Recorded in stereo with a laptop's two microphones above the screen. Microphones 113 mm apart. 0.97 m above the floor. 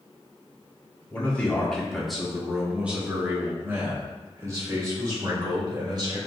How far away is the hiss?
I don't hear a hiss.